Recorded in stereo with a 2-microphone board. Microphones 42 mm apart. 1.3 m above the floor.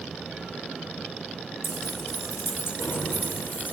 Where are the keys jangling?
70° left (ahead or behind), 2.5 m; by 3.7 s 50° left (ahead or behind), 3 m.